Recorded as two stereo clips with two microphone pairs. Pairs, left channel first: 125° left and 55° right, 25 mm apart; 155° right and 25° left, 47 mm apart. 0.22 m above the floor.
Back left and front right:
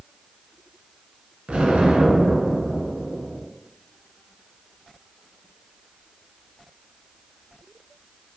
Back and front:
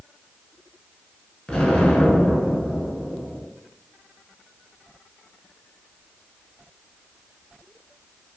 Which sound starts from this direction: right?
An explosion, at 1.5 s.